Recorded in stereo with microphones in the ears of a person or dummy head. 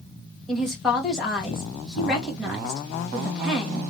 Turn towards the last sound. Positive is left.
turn(degrees=0)  # may be behind; listen again after turning